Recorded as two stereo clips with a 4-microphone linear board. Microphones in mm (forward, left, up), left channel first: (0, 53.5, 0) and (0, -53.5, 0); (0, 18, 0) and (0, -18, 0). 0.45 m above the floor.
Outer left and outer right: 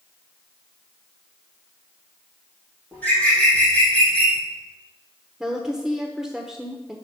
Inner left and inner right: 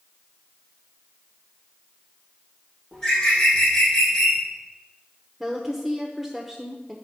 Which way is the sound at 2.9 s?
15° left (ahead or behind).